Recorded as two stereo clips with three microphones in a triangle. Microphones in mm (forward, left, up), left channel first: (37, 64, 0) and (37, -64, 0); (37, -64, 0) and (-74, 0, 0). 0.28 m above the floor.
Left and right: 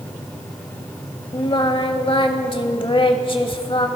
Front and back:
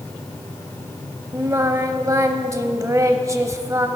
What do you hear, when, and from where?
1.3 s singing: 100° left, 0.7 m